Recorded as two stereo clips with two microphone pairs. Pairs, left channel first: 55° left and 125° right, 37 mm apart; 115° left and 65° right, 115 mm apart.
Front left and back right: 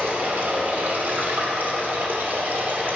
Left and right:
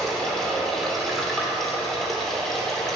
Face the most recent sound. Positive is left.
turn(degrees=-155)